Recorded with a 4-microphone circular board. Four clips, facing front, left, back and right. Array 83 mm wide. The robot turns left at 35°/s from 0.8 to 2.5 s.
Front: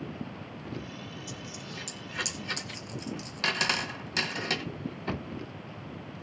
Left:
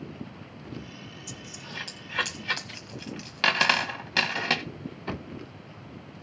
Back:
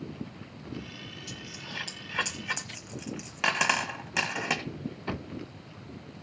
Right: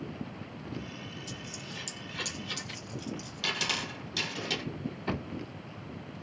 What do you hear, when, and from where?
1.3 s a dropped coin: 160° left, 1.5 m; by 4.6 s 115° left, 1.5 m